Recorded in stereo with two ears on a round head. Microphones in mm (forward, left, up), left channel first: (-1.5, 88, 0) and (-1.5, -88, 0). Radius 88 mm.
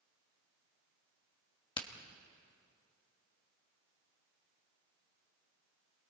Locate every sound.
1.8 s a crack: 25° left (ahead or behind), 1.3 m